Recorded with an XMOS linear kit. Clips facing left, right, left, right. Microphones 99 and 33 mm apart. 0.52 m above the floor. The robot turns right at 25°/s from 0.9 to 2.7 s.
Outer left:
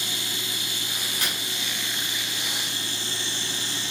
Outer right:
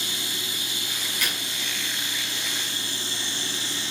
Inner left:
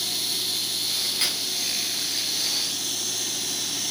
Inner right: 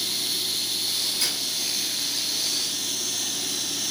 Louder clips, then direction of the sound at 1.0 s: Outer right 1 dB, inner left 1 dB; 35° left (ahead or behind).